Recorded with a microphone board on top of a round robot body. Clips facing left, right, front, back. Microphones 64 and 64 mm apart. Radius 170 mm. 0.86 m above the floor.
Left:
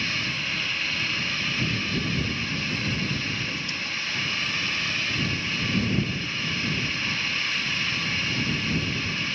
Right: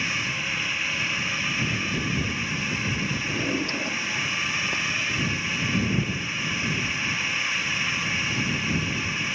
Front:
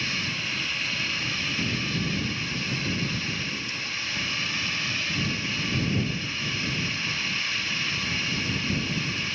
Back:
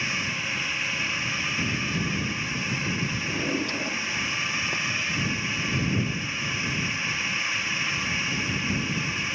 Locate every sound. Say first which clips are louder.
0.0 s a drone: right 1 dB, back 2 dB; 145° right
3.2 s a drawer: right 4 dB, back 5 dB; 140° right